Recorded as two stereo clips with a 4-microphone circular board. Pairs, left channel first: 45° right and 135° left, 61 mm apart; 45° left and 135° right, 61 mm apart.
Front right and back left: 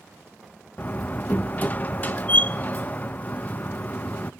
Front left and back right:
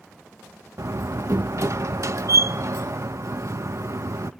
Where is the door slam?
105° right, 0.6 m.